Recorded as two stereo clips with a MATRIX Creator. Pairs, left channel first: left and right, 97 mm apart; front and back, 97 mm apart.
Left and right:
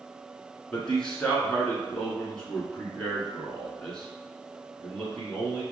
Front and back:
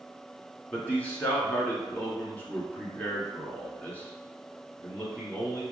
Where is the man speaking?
30° left, 1.2 m.